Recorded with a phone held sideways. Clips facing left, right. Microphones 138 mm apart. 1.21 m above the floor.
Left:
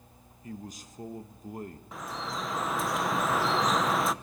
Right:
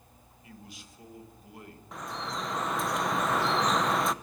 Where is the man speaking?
40° left (ahead or behind), 1.2 m.